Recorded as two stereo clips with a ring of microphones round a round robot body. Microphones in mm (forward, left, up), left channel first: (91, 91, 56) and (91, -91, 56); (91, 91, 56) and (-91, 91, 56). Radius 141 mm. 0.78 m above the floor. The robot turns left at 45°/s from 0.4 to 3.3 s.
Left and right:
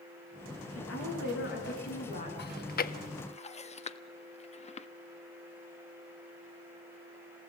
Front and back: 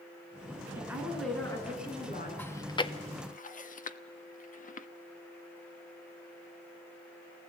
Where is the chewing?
80° left, 1.3 m; by 4.9 s 40° left, 1.3 m.